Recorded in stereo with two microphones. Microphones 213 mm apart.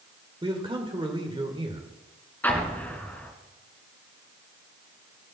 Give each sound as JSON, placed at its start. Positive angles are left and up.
{"t": 0.4, "sound": "a man speaking", "side_deg": -25, "distance_m": 1.5}
{"t": 2.4, "sound": "an explosion", "side_deg": 10, "distance_m": 2.0}